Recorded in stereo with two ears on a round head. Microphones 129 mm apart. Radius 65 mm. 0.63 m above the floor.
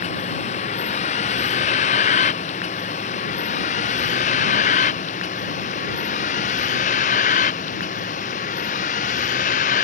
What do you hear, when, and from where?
0.0 s a vehicle: 55° left (ahead or behind); by 9.8 s 60° left (ahead or behind)